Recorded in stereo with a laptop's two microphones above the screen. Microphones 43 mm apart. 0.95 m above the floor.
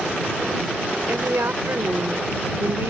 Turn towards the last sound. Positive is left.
turn(degrees=-85)